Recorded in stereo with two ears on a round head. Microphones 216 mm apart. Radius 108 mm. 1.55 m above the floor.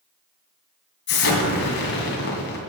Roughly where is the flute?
No flute in this recording.